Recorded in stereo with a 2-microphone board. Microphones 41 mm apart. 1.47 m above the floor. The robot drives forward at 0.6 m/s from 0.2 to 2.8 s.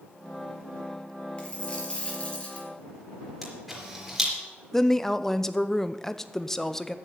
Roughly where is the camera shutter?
Centre.